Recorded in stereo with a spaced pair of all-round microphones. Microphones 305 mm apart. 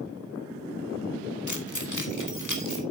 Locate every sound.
1.5 s keys jangling: 70° left (ahead or behind), 1.4 m; by 2.8 s 80° left, 2.5 m